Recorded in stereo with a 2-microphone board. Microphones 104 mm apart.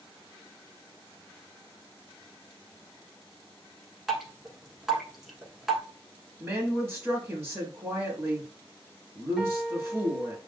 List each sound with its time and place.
4.1 s dripping: 5° right (ahead or behind), 1.1 m
6.4 s a woman speaking: 25° right (ahead or behind), 1.1 m
9.4 s a piano: 5° right (ahead or behind), 1.0 m